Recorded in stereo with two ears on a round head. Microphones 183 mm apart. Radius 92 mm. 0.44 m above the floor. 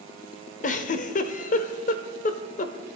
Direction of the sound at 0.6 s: 40° left (ahead or behind).